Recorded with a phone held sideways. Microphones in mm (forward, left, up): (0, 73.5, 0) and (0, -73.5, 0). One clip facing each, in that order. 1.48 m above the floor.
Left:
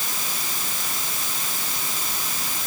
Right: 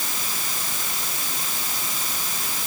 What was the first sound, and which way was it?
Only background noise.